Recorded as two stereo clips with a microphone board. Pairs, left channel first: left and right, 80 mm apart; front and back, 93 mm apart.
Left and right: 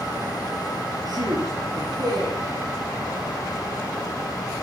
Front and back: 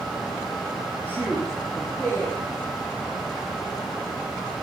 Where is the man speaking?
70° right, 8 m.